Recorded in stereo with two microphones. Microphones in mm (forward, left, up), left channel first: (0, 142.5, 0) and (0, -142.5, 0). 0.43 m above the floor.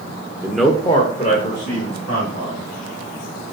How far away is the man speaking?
About 0.8 m.